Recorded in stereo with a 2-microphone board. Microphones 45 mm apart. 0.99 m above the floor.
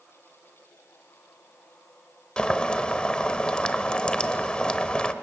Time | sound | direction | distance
2.4 | boiling | 20° left (ahead or behind) | 1.1 m